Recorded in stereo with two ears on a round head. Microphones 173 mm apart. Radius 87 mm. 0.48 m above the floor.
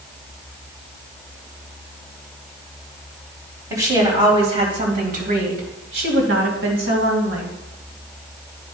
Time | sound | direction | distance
3.7 | a woman speaking | 15° right (ahead or behind) | 3 m